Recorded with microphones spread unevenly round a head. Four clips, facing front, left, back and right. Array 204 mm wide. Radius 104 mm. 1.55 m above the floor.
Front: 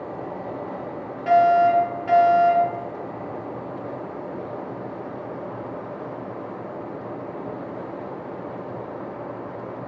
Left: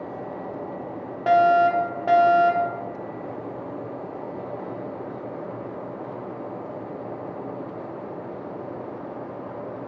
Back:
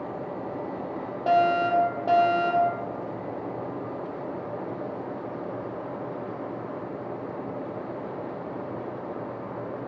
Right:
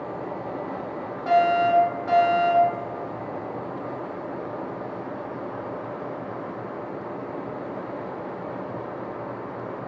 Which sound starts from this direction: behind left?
A fire alarm, at 1.3 s.